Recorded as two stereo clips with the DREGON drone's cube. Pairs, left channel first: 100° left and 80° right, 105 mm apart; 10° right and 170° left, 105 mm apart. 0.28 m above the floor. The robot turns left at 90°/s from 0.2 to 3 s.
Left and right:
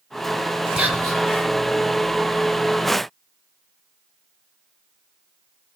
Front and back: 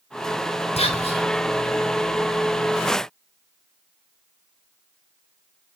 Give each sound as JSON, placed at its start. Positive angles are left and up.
{"t": 0.8, "sound": "whispering", "azimuth_deg": 5, "distance_m": 4.0}